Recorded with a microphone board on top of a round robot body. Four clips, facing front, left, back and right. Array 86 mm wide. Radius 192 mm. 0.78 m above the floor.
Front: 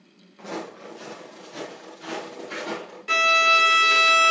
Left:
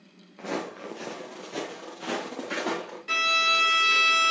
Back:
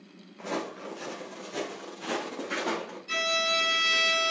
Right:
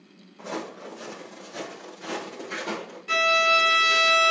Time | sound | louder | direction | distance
0.4 | footsteps | left 1 dB, even | 90° left | 1.0 m
3.1 | a violin | right 5 dB, front 10 dB | 5° left | 1.2 m